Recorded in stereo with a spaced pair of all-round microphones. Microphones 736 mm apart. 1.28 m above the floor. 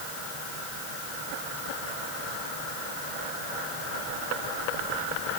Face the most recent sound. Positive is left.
No sound to turn to.